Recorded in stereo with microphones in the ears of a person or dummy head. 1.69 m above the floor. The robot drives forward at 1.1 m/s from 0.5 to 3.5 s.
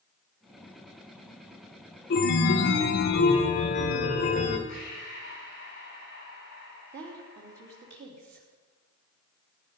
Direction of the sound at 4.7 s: 50° left (ahead or behind).